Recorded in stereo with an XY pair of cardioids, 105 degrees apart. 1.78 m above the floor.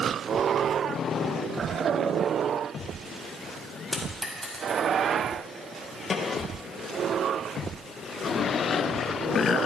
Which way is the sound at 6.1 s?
40° left.